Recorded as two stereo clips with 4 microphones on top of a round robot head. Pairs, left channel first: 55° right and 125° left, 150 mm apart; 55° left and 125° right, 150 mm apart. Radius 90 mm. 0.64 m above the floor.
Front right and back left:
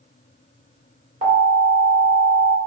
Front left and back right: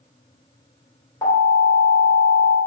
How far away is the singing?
No singing in this recording.